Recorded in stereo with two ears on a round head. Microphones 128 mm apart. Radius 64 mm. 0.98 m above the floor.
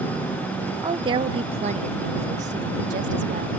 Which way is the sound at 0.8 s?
30° right (ahead or behind).